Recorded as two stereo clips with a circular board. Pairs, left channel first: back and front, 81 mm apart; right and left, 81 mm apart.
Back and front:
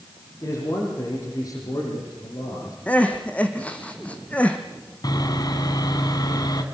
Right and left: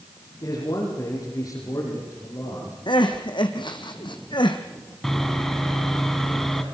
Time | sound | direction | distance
0.4 | a man speaking | 130° right | 9 m
2.9 | crying | 105° right | 2.5 m
5.0 | sawing | 175° right | 2.5 m